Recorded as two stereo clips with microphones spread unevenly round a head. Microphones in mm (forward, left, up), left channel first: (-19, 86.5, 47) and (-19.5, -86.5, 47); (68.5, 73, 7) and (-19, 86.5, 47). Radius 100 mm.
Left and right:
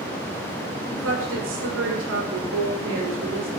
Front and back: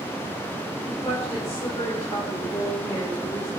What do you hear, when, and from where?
0.8 s a woman speaking: 80° right, 6.5 m; by 3.5 s 95° right, 6 m